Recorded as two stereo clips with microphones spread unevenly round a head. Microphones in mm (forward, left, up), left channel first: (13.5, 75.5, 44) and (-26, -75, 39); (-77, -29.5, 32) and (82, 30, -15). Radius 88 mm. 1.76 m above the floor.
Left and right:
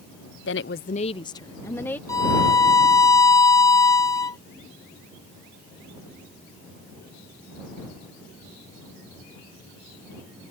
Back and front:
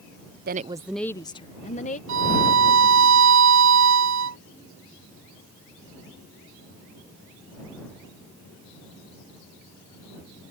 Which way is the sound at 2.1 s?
5° left.